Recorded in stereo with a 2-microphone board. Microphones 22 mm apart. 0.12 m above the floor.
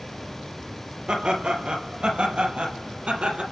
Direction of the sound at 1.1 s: 55° right (ahead or behind).